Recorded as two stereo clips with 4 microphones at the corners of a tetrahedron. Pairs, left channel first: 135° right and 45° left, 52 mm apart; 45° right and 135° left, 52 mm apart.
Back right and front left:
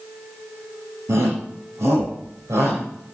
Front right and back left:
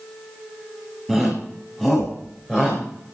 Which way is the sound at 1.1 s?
40° left.